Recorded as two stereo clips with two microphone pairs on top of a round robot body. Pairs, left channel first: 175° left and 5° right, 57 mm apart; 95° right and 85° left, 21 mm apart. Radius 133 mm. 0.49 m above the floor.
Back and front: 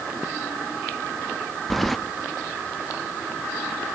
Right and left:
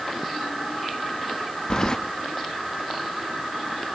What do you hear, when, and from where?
1.7 s keys jangling: 125° right, 0.7 m